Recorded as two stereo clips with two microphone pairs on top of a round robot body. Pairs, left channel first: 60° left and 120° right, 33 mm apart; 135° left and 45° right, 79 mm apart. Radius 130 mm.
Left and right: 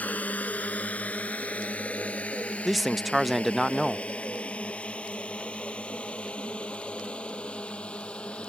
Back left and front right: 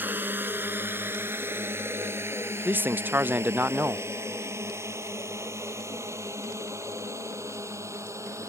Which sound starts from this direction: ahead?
A drone, at 0.0 s.